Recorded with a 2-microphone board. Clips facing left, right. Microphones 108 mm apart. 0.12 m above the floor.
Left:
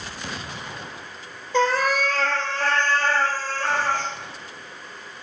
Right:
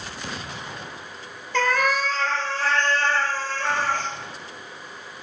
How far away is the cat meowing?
About 0.8 m.